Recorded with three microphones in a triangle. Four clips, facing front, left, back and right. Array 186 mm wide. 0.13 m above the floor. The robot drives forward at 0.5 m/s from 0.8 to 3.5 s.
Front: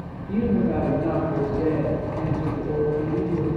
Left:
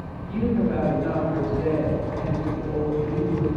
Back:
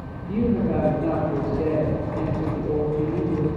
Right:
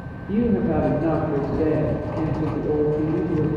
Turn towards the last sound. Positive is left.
turn(degrees=-110)